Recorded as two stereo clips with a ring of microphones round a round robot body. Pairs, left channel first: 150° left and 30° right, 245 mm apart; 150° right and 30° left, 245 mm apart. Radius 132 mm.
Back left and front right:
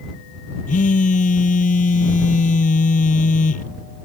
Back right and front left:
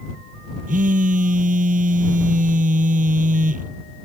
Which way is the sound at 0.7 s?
90° left.